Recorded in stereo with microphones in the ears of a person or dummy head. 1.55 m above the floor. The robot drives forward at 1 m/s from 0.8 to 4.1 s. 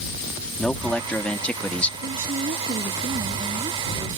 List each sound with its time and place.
0.6 s a man speaking: 5° left (ahead or behind)
2.0 s a woman speaking: 45° right (ahead or behind); by 4.1 s 25° right (ahead or behind)